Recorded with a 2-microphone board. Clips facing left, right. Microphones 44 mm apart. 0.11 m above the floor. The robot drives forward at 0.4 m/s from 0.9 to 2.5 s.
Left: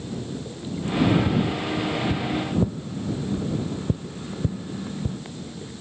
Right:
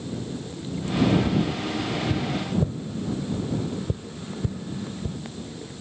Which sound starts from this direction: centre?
Tapping, at 1.3 s.